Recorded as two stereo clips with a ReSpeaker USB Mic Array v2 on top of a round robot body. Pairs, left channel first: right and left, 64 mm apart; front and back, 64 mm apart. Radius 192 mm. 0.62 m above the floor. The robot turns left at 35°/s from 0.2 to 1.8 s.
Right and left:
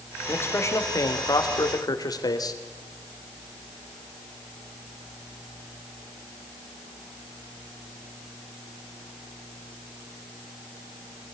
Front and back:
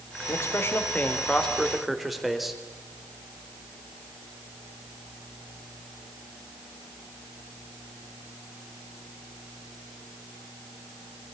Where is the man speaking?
40° right, 3.5 m; by 2.6 s 90° right, 3.5 m.